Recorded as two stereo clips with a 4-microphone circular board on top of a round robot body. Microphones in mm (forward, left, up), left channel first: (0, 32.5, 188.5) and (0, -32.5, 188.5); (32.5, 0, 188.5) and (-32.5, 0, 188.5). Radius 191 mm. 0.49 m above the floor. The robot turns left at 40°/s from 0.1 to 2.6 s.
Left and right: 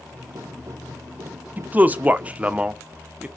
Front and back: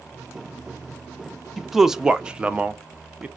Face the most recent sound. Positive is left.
turn(degrees=-135)